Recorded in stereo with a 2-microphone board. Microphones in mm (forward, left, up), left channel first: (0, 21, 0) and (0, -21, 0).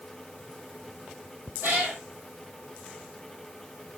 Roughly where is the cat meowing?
Right.